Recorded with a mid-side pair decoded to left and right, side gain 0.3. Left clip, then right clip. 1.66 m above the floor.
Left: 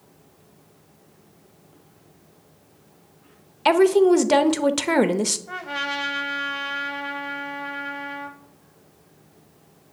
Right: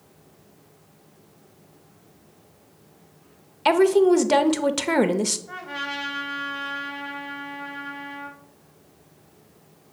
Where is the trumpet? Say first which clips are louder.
Left 3 dB; 65° left, 1.1 m.